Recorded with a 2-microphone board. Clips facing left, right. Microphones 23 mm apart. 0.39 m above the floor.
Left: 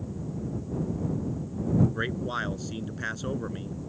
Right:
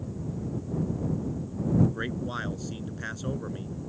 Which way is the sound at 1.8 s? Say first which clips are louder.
Left 1 dB; 15° left (ahead or behind).